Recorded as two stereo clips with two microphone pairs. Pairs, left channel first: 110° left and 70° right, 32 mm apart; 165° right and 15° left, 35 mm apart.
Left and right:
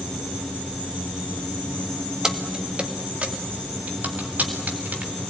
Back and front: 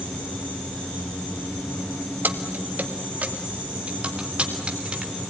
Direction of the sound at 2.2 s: Straight ahead.